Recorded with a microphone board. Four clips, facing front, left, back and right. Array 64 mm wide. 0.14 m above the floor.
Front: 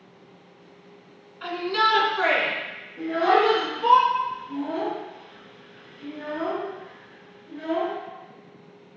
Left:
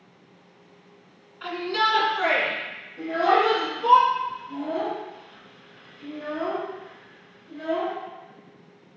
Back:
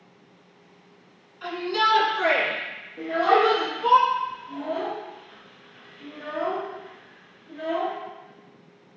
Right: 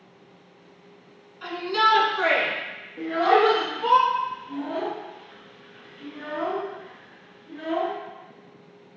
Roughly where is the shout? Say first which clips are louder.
Right 2 dB, front 1 dB; ahead left.